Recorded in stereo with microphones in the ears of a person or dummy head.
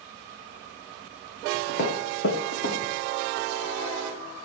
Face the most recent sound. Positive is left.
turn(degrees=75)  # may be behind; listen again after turning